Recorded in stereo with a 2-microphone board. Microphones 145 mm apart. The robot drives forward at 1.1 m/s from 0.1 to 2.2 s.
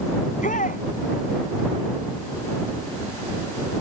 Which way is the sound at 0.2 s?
65° left (ahead or behind).